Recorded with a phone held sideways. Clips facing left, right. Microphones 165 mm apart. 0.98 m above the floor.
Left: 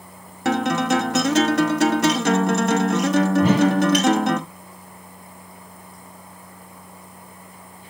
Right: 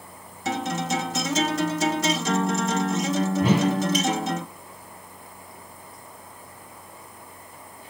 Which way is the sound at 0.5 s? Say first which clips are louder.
Left 7 dB; 80° left.